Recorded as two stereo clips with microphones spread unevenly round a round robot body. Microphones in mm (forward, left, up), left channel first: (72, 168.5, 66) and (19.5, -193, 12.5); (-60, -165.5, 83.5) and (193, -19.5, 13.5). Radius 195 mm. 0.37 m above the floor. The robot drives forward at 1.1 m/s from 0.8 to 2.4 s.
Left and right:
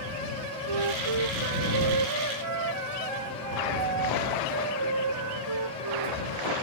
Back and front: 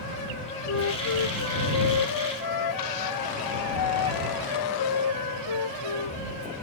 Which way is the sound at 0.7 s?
120° right.